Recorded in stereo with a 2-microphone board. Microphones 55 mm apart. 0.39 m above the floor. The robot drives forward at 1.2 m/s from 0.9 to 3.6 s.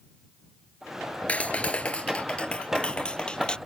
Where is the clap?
25° left (ahead or behind); by 3.6 s 15° left (ahead or behind).